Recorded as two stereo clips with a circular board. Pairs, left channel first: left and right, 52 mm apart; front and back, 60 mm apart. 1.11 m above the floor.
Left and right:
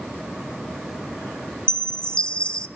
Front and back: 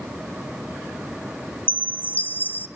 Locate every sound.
1.7 s a chime: 30° left, 0.7 m